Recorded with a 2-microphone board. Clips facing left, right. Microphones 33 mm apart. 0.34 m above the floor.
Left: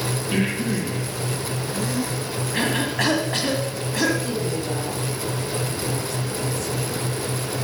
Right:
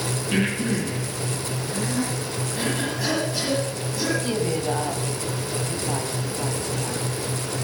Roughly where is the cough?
Left.